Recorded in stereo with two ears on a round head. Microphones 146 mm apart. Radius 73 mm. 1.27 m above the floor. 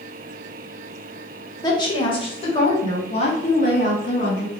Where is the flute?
I don't hear a flute.